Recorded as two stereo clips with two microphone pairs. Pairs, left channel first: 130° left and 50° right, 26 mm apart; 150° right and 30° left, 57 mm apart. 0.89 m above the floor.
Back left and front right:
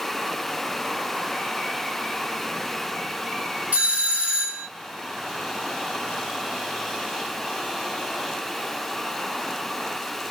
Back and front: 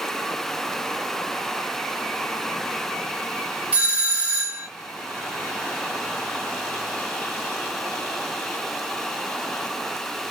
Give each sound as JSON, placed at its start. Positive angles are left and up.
{"t": 3.7, "sound": "a doorbell", "azimuth_deg": -40, "distance_m": 1.9}